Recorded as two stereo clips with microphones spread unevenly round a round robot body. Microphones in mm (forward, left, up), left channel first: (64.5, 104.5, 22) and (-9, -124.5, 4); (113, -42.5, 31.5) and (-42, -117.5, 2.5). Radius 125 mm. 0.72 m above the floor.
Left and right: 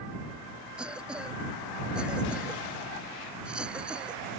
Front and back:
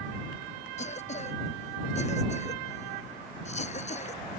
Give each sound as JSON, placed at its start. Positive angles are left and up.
{"t": 0.8, "sound": "a cough", "azimuth_deg": -20}